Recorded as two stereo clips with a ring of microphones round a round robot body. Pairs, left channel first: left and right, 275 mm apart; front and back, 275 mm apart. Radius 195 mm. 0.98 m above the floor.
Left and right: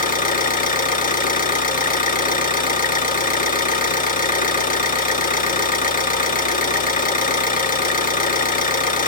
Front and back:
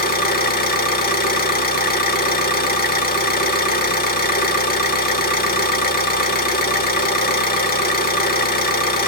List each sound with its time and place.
0.0 s an engine running: 45° left, 0.8 m